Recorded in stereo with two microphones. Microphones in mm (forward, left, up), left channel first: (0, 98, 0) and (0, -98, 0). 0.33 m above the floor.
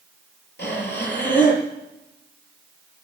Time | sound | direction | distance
0.6 | breathing | 65° left (ahead or behind) | 5.5 m